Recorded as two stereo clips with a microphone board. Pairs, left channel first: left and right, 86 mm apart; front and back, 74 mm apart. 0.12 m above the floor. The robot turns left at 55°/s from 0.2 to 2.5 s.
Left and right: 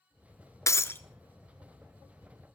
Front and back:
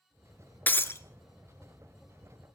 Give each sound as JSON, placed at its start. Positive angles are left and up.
{"t": 0.7, "sound": "breaking glass", "azimuth_deg": 55, "distance_m": 0.7}